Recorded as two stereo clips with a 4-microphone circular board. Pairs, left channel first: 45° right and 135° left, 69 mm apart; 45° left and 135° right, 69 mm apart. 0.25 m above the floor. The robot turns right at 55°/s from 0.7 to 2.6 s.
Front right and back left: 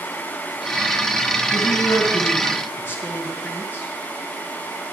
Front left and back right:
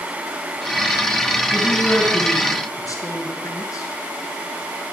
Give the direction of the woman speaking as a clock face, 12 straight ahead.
2 o'clock.